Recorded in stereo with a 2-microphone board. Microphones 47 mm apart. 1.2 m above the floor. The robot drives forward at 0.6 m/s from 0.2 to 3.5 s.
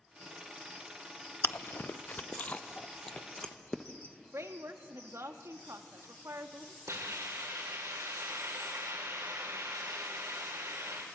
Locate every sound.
1.4 s chewing: 50° left (ahead or behind), 0.5 m; by 3.8 s 20° left (ahead or behind), 1.3 m
4.3 s a woman speaking: 75° right (ahead or behind), 1.8 m
6.9 s a hiss: 85° right, 4.5 m